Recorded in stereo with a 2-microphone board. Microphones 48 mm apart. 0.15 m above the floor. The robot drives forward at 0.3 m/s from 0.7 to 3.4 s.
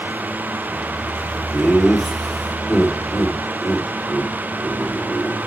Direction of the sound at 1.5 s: 5° left (ahead or behind).